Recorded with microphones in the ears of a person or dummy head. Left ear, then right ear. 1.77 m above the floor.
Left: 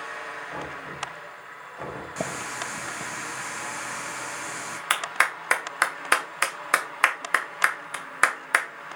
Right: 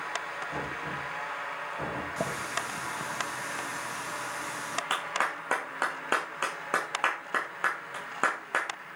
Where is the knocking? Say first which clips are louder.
Right 1 dB; 75° left (ahead or behind), 5 m.